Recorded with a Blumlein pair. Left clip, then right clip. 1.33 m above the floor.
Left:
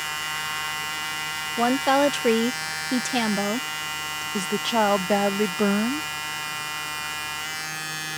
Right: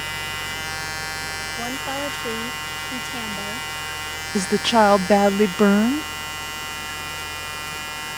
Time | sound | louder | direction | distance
0.0 | a fan | right 1 dB | 35° right | ?
1.6 | a woman speaking | left 11 dB | 25° left | ?
4.3 | a woman speaking | right 6 dB | 20° right | ?